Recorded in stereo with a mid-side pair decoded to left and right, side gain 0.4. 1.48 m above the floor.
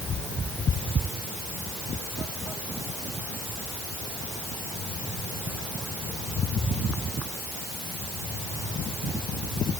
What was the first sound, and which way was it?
Only background noise.